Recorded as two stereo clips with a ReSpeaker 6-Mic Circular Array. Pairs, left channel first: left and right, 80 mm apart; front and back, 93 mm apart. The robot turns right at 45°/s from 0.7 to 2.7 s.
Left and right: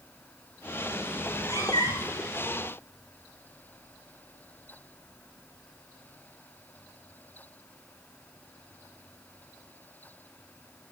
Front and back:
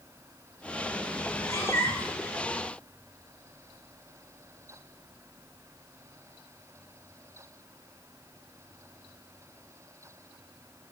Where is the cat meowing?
35° left, 1.4 m; by 2.2 s 80° left, 1.4 m.